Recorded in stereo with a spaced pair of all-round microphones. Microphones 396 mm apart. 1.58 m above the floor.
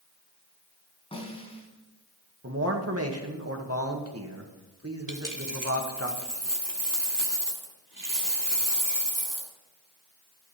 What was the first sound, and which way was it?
A snare drum, 15° left (ahead or behind).